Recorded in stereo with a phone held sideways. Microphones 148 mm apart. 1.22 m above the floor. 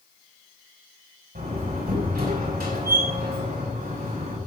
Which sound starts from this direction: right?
A door slam, at 1.4 s.